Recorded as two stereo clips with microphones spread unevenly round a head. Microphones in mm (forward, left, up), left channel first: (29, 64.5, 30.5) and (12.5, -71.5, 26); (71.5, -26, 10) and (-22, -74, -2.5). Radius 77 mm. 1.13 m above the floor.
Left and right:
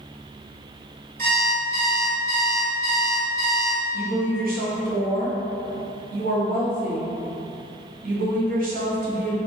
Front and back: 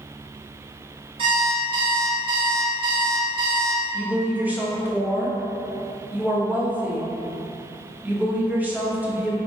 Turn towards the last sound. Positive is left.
turn(degrees=-80)